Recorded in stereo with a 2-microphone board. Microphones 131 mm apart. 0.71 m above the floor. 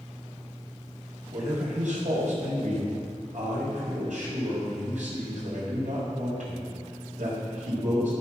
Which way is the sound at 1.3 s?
70° right (ahead or behind).